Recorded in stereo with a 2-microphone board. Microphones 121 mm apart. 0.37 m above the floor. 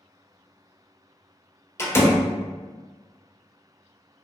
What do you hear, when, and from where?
1.8 s a door slam: 20° left (ahead or behind), 0.6 m